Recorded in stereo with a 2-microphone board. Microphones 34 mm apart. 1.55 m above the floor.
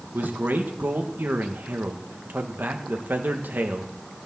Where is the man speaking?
70° right (ahead or behind), 1.7 m.